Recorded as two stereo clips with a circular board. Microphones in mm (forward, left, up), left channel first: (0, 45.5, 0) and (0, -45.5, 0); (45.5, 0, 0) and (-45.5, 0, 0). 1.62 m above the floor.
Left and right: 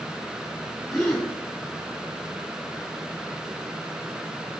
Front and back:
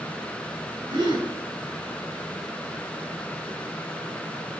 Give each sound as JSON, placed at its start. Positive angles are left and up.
{"t": 0.9, "sound": "a gasp", "azimuth_deg": 180, "distance_m": 1.2}